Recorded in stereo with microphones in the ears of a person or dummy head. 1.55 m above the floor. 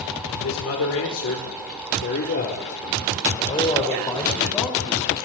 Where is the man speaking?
85° left, 4.5 m; by 5.3 s 5° left (ahead or behind), 6 m.